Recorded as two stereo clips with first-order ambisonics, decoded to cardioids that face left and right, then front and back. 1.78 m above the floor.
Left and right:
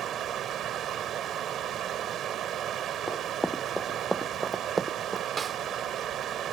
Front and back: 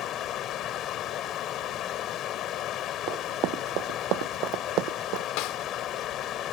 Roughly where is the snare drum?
Ahead.